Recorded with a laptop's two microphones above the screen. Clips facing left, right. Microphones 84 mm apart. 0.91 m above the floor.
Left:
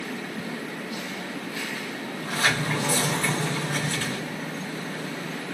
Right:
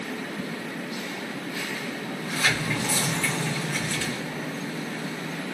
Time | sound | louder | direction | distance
2.1 | a sliding door | left 2 dB | 45° left (ahead or behind) | 0.7 m